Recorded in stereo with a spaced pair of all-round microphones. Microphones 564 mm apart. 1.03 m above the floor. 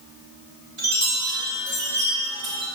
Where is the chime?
65° right (ahead or behind), 2.5 m.